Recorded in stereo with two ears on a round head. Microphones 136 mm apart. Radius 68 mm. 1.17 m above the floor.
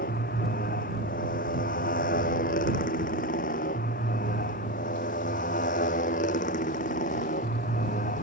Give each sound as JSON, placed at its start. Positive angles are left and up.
{"t": 0.0, "sound": "a motorcycle", "side_deg": 60}